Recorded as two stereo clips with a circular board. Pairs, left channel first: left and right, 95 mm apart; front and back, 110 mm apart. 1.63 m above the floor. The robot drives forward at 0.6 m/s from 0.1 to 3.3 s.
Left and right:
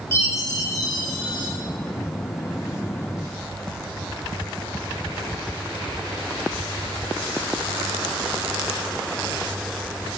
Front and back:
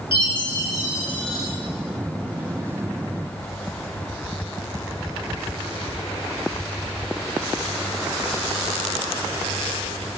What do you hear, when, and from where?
0.1 s a chime: 30° left, 1.0 m; by 1.5 s 100° left, 0.7 m